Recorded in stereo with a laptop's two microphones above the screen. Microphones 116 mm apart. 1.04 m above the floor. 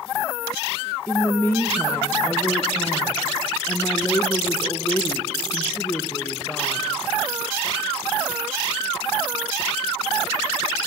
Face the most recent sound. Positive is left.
turn(degrees=20)  # may be behind; listen again after turning